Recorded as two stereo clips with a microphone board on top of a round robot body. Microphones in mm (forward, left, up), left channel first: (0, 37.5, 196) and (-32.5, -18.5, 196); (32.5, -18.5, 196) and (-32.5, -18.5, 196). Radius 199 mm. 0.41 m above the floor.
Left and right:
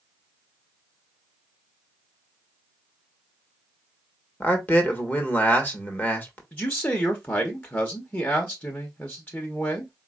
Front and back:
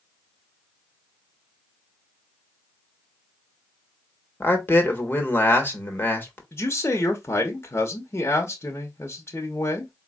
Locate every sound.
4.4 s a man speaking: 30° left, 1.4 m
6.5 s a man speaking: 15° left, 1.1 m